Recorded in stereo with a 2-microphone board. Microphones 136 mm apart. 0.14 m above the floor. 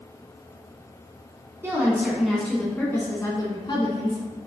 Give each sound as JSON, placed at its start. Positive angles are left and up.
{"t": 1.6, "sound": "a woman speaking", "side_deg": -20, "distance_m": 1.1}